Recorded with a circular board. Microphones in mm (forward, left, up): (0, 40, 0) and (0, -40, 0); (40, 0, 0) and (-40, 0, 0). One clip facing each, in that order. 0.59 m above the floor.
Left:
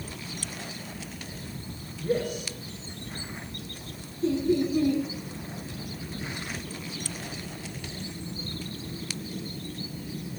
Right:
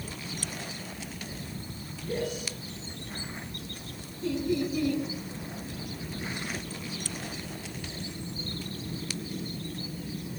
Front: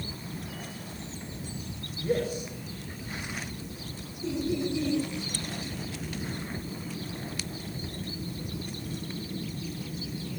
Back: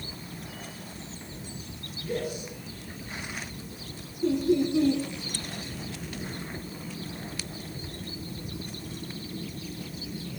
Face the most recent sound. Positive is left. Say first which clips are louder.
# left 4 dB, back 6 dB
turn(degrees=150)